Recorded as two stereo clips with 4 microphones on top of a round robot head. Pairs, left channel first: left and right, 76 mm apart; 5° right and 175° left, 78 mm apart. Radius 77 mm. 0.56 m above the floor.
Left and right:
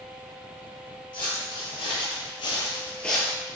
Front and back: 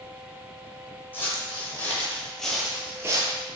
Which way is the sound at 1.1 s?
60° left.